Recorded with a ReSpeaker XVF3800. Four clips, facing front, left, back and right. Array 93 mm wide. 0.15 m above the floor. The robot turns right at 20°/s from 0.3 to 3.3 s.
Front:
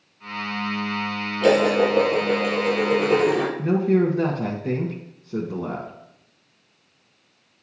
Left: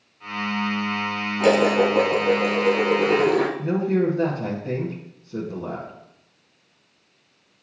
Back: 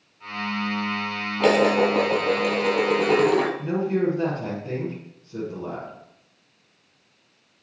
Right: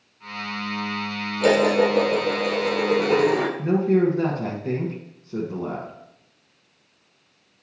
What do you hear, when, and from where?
1.4 s dishes clattering: 155° left, 2.5 m; by 3.5 s 165° right, 2.5 m
3.6 s a man speaking: 25° right, 1.8 m